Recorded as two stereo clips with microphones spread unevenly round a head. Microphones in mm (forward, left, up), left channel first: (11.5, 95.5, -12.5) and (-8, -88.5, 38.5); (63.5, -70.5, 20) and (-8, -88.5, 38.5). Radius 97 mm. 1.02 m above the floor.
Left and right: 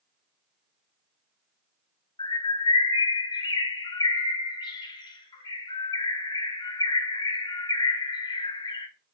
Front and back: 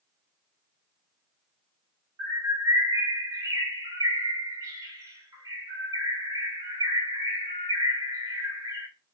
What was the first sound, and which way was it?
A bird, 160° left.